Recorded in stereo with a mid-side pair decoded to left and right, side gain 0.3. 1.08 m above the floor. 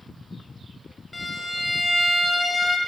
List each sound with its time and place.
1.1 s a violin: 45° left, 0.7 m